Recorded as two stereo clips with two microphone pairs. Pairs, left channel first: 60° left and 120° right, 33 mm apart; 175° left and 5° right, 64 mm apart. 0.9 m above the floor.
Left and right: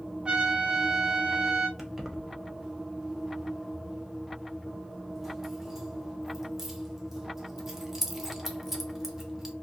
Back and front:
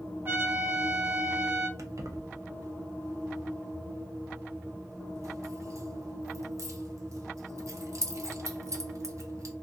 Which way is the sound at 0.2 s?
60° right.